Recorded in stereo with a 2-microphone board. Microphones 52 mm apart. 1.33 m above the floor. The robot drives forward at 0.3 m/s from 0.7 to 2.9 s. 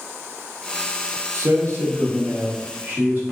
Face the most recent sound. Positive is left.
turn(degrees=-45)  # may be behind; listen again after turning